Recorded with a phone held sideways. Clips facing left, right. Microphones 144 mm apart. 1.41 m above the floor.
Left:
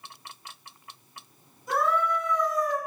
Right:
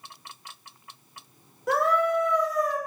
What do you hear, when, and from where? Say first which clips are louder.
1.7 s a scream: right 3 dB; 80° right, 6 m